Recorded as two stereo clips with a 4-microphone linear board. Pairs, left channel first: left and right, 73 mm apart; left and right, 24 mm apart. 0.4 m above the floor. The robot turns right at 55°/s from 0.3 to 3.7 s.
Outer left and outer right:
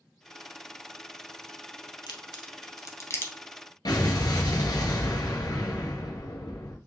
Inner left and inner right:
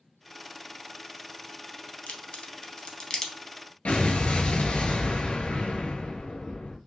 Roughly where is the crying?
I don't hear crying.